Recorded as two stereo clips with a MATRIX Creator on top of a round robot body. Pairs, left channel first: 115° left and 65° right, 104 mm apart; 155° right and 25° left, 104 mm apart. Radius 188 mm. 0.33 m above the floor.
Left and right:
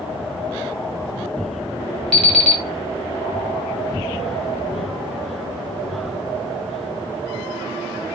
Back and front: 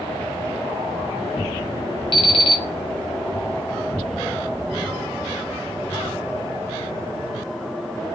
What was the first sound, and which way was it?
An alarm clock, 170° right.